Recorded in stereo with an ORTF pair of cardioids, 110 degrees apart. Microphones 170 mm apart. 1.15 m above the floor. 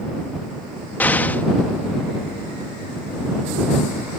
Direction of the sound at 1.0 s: 10° left.